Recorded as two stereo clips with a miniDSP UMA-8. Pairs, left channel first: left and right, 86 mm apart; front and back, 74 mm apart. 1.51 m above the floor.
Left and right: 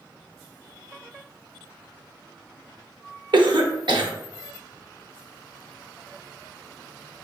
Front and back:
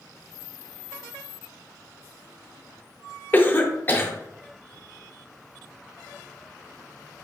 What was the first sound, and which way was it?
A cough, 65° right.